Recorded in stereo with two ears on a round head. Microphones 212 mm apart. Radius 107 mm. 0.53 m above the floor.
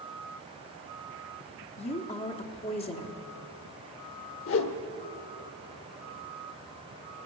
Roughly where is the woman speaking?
Left.